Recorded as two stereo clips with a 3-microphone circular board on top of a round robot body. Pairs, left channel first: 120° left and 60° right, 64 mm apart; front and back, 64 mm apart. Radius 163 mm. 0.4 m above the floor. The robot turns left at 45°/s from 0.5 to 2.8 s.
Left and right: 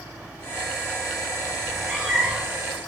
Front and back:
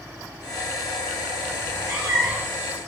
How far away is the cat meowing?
About 2 m.